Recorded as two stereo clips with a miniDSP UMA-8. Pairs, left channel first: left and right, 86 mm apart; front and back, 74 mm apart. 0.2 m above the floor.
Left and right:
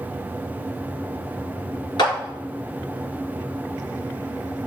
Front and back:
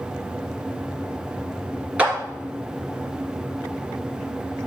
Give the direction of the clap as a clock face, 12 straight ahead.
8 o'clock.